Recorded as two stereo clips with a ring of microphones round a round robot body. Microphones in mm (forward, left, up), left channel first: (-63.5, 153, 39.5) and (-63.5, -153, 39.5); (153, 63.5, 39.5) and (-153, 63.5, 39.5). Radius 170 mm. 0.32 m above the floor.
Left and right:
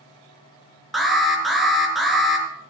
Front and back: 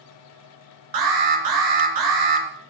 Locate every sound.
0.9 s an alarm: straight behind, 4.5 m